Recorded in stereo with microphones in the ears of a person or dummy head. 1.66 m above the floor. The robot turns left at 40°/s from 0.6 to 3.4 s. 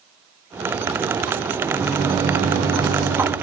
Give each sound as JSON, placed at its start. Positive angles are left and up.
{"t": 1.6, "sound": "a microwave", "azimuth_deg": -5, "distance_m": 1.7}